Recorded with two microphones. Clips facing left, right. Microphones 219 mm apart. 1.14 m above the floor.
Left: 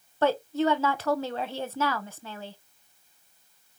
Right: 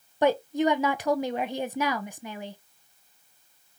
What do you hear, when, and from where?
0.2 s a woman speaking: 15° right (ahead or behind), 0.7 m